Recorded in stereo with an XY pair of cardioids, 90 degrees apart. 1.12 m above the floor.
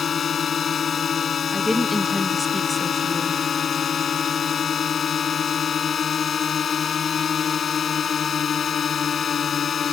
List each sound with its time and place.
0.0 s a drone: 55° left
1.5 s a woman speaking: 15° left